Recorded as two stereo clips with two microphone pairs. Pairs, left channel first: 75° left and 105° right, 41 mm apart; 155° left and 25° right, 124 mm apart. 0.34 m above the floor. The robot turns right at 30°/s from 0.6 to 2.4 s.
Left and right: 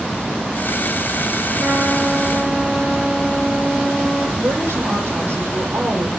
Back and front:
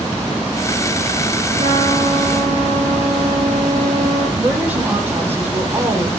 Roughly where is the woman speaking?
Right.